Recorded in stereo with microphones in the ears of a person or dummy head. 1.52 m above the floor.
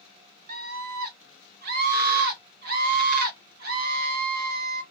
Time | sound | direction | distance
0.5 | a scream | 50° right (ahead or behind) | 1.3 m